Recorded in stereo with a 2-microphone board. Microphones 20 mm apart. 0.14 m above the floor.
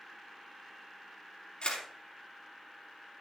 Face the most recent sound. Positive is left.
turn(degrees=55)  # may be behind; listen again after turning